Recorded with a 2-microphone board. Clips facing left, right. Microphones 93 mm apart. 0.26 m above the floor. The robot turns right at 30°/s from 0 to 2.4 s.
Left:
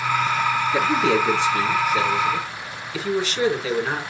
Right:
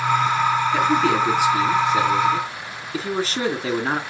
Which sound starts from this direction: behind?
A man speaking, at 0.7 s.